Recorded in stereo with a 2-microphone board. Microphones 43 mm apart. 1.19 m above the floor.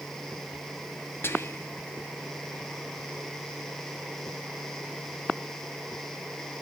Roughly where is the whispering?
Left.